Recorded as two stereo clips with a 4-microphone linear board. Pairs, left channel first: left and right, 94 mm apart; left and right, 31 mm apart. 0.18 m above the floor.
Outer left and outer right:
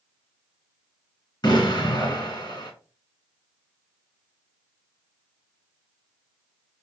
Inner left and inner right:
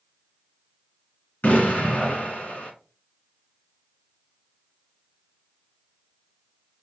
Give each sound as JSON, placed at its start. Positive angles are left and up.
{"t": 1.4, "sound": "an explosion", "side_deg": 50, "distance_m": 2.0}